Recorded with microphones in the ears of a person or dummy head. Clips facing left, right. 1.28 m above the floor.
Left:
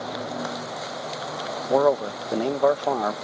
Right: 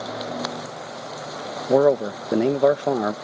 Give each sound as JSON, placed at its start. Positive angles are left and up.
{"t": 1.7, "sound": "a man speaking", "side_deg": -20}